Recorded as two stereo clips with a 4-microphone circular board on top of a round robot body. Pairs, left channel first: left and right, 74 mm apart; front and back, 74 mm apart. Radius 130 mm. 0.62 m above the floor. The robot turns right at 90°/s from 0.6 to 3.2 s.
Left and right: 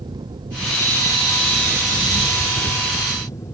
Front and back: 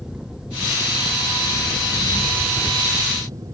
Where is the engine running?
100° right; by 3.5 s 135° left.